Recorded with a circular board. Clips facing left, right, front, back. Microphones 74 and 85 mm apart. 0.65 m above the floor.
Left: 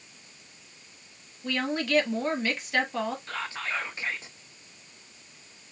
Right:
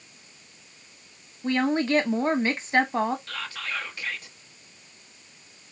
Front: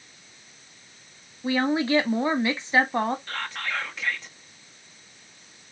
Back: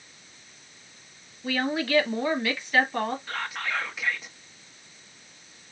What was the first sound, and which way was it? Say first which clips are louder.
A woman speaking: right 6 dB, front 4 dB; 55° right.